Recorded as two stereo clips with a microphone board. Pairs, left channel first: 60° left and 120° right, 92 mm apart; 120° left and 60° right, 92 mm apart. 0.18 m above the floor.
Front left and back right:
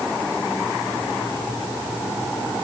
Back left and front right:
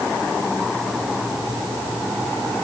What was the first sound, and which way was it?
Only background noise.